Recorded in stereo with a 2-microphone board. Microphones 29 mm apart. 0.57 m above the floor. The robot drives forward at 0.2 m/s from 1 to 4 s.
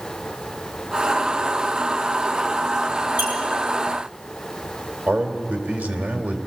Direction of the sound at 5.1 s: 70° right (ahead or behind).